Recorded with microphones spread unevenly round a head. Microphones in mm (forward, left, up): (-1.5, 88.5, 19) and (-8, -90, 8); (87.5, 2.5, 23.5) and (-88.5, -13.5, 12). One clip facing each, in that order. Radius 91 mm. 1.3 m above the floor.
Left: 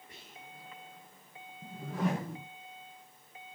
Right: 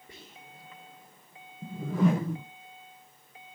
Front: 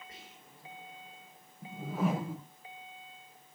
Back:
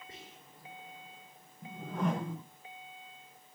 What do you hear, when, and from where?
0.1 s whispering: 110° right, 3 m
1.6 s a whoosh: 80° right, 0.7 m